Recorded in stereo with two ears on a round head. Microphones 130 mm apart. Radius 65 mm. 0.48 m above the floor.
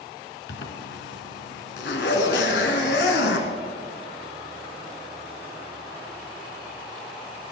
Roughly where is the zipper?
Left.